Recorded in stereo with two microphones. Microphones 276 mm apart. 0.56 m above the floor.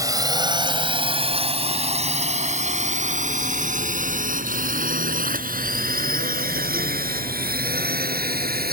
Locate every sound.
0.0 s a drone: 10° right (ahead or behind); by 8.7 s 35° right (ahead or behind)